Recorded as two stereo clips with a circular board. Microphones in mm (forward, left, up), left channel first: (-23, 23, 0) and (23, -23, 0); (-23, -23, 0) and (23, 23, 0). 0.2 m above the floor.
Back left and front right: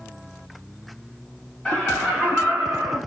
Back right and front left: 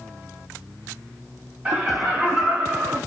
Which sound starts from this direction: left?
Laughter, at 1.6 s.